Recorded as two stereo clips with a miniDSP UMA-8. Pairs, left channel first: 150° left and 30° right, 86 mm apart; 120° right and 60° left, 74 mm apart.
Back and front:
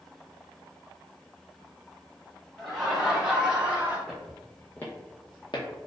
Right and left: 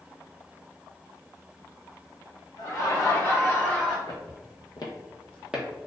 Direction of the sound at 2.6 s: 120° right.